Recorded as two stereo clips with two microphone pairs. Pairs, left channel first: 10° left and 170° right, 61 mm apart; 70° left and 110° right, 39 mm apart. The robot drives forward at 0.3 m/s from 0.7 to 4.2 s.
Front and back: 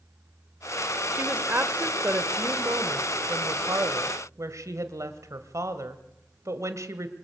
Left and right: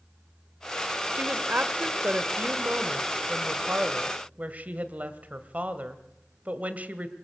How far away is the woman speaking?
About 1.2 m.